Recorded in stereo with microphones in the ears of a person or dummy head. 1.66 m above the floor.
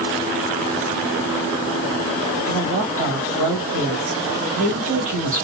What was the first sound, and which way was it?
A woman speaking, 40° right (ahead or behind).